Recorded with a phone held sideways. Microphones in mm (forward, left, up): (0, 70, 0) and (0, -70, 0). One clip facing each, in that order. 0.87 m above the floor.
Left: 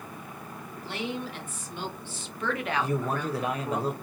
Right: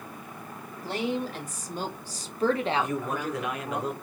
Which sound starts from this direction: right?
A woman speaking, at 0.8 s.